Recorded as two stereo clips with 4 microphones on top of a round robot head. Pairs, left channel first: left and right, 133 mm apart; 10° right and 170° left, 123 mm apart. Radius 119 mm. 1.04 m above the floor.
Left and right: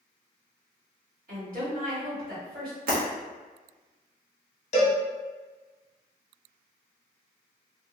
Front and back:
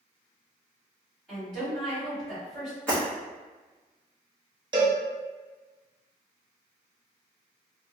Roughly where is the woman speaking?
Right.